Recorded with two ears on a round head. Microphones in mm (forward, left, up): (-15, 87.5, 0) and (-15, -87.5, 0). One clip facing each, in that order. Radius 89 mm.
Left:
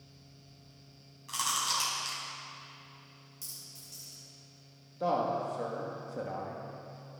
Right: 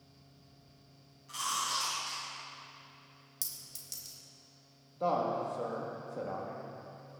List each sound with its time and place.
1.3 s chewing: 80° left, 3.5 m
3.4 s a clink: 80° right, 2.5 m
5.0 s a man speaking: 5° left (ahead or behind), 1.3 m